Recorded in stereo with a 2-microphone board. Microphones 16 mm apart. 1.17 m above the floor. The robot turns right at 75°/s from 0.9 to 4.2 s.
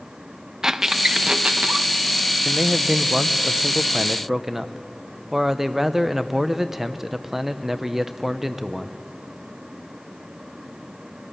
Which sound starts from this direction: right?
A squeak, at 0.6 s.